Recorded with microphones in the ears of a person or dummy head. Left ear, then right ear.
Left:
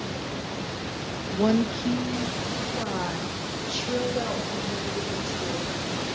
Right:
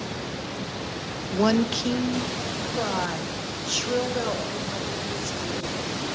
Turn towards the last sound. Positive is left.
turn(degrees=-70)  # may be behind; listen again after turning